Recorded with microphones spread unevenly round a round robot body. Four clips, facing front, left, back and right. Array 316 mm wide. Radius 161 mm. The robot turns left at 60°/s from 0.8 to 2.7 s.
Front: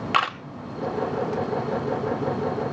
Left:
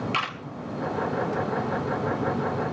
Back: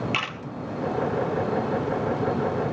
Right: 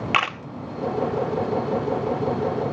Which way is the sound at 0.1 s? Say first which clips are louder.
Right 6 dB, front 8 dB; 60° right.